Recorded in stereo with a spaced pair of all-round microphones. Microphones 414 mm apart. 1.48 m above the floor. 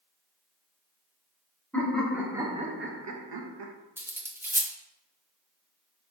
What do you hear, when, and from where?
1.7 s laughter: 5° left (ahead or behind), 1.3 m; by 3.7 s 70° right (ahead or behind), 0.6 m
4.0 s cutlery clinking: 5° right (ahead or behind), 0.5 m